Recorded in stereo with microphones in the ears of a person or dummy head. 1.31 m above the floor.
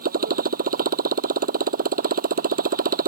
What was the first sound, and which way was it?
A motorcycle, 45° right (ahead or behind).